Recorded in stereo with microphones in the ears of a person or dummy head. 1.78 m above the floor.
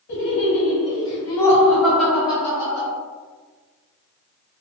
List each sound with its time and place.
0.1 s laughter: 55° left (ahead or behind), 1.5 m; by 2.9 s 15° right (ahead or behind), 1.8 m